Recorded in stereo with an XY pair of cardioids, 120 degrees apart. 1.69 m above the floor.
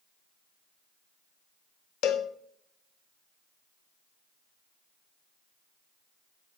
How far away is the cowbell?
About 0.7 m.